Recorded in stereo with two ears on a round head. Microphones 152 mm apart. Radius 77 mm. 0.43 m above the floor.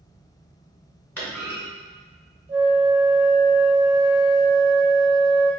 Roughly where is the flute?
Right.